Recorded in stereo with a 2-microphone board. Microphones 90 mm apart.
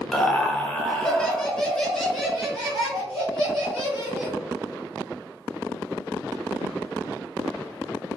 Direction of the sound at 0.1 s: 10° left (ahead or behind).